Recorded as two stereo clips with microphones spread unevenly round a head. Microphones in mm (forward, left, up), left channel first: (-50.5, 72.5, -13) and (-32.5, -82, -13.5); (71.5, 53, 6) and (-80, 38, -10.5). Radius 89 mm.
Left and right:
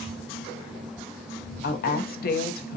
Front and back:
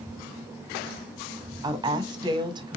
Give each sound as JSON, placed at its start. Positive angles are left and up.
{"t": 1.6, "sound": "a woman speaking", "azimuth_deg": 125, "distance_m": 0.8}